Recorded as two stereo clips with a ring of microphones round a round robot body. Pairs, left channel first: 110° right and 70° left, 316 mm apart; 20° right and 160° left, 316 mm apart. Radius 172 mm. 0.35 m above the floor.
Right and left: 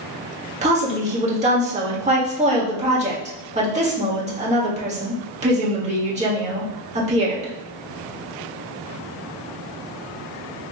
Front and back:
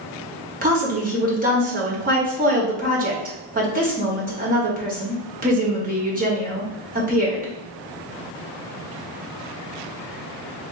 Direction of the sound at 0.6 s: 120° left.